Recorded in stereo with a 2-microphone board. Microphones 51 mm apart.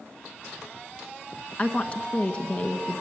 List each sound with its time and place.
1.6 s a woman speaking: 25° left (ahead or behind), 1.1 m